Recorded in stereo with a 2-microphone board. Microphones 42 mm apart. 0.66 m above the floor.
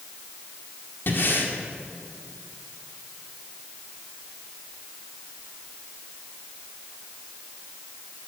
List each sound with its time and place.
1.1 s breathing: 55° left (ahead or behind), 1.8 m